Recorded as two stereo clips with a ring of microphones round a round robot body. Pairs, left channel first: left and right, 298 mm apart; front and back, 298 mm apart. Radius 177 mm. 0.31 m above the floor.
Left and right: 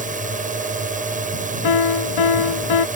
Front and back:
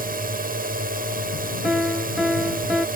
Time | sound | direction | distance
0.0 | a drone | 135° right | ?
1.6 | a piano | 90° left | ?